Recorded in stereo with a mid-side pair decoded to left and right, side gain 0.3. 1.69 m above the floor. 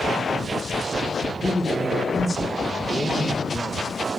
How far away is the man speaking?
About 3.5 m.